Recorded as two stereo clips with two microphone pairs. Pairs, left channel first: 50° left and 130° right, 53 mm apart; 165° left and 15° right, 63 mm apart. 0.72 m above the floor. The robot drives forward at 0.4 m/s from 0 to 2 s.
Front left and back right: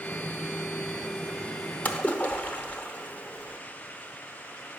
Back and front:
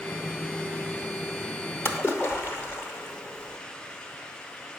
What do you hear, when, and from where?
1.9 s a splash: 110° left, 0.7 m; by 3.6 s 115° left, 0.7 m